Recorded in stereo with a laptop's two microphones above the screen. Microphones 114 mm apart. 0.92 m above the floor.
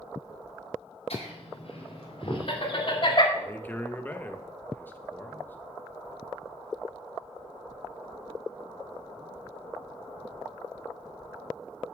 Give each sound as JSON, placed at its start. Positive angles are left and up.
{"t": 1.1, "sound": "laughter", "side_deg": 65, "distance_m": 4.0}
{"t": 3.3, "sound": "a man speaking", "side_deg": 15, "distance_m": 1.0}